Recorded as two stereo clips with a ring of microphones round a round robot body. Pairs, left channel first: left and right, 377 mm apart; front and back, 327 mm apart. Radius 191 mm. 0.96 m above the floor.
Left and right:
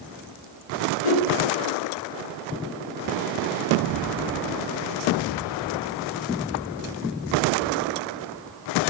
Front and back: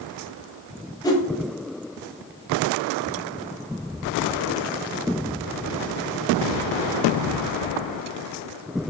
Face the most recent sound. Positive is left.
turn(degrees=80)